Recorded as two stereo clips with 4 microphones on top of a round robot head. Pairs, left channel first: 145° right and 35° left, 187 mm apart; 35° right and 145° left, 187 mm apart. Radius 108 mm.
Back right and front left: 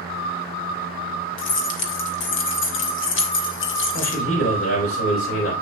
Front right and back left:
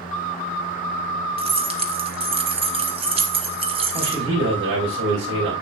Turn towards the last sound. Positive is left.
turn(degrees=175)